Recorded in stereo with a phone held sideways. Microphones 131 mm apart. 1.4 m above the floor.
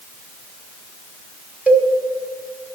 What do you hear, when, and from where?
1.7 s a cowbell: 10° right (ahead or behind), 1.7 m